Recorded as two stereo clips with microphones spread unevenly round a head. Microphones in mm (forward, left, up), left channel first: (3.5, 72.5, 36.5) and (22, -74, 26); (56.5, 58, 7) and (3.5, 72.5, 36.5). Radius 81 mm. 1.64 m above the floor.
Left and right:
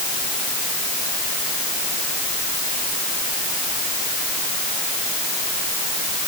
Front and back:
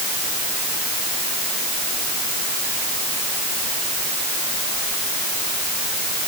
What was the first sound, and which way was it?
Only background noise.